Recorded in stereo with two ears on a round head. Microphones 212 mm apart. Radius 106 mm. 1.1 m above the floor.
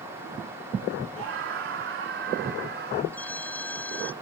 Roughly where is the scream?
Right.